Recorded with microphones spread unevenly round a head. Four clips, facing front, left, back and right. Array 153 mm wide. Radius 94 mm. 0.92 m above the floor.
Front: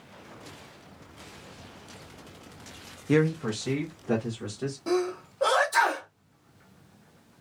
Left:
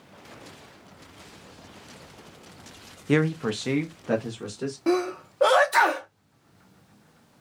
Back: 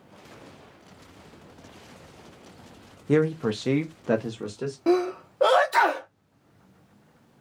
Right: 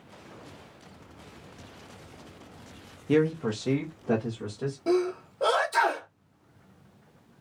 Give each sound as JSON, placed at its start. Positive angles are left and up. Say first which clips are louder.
{"t": 3.1, "sound": "a man speaking", "louder": "left 1 dB, back 2 dB", "azimuth_deg": 80, "distance_m": 0.6}
{"t": 4.9, "sound": "a sneeze", "louder": "left 1 dB, back 5 dB", "azimuth_deg": 140, "distance_m": 0.8}